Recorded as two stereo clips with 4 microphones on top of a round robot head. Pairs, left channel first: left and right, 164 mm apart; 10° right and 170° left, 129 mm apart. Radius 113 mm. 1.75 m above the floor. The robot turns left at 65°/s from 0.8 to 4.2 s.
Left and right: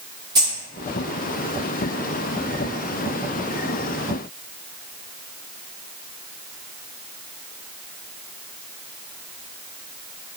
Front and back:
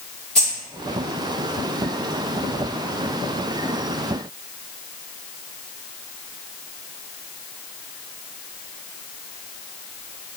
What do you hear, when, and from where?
0.3 s keys jangling: 90° right, 0.6 m